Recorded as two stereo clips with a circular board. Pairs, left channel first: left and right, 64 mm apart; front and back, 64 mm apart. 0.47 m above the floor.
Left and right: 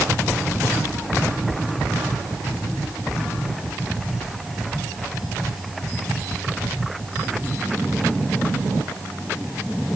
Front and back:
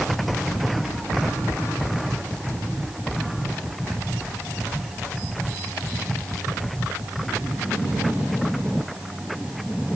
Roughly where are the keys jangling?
No keys jangling in this recording.